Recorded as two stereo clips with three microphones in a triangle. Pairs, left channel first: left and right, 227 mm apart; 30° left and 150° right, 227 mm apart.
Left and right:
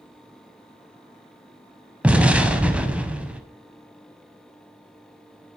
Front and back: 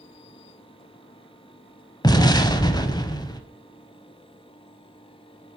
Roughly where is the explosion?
Ahead.